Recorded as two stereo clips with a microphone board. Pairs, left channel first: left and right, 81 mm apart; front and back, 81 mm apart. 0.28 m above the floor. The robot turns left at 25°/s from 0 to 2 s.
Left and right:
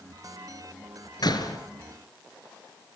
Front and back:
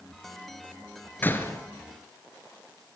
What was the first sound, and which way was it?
A door slam, 65° left.